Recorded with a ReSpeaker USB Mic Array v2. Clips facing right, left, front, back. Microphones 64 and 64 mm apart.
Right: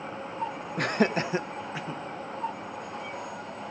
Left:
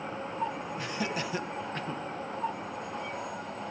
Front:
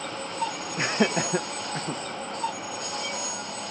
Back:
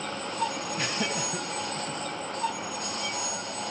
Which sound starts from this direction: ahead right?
Laughter, at 0.8 s.